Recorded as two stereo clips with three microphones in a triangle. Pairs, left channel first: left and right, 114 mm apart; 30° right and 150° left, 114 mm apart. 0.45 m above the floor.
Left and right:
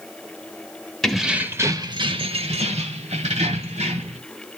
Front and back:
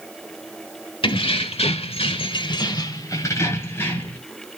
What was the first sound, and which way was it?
Keys jangling, straight ahead.